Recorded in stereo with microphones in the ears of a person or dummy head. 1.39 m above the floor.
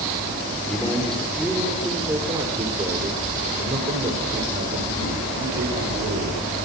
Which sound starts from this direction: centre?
A man speaking, at 0.7 s.